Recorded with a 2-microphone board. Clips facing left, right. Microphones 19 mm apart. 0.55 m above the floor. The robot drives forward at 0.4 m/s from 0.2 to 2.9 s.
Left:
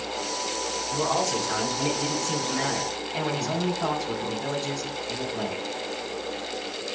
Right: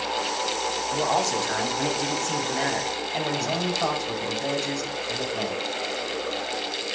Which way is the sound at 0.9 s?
45° right (ahead or behind).